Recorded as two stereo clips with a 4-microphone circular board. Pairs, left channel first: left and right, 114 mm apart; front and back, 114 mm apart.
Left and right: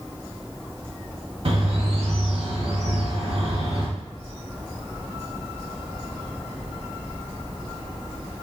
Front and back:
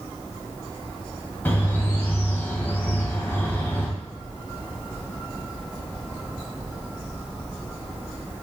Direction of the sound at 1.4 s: 75° right.